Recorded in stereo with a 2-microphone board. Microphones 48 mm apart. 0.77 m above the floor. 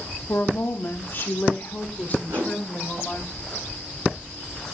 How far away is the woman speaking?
About 1.0 m.